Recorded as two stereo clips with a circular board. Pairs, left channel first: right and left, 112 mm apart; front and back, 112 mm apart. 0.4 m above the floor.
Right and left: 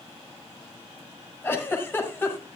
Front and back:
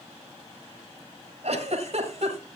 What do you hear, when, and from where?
1.4 s a giggle: 160° right, 2.5 m